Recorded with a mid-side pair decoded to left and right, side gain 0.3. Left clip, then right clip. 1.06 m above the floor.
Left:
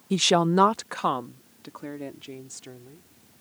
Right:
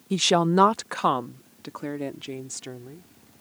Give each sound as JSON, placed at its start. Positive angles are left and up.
{"t": 0.1, "sound": "a woman speaking", "azimuth_deg": 10}